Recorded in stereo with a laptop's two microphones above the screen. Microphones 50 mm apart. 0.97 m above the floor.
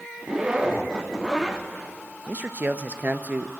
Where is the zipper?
15° right (ahead or behind), 0.7 m.